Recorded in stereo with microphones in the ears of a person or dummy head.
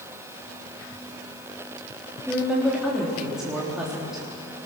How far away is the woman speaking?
About 3.5 m.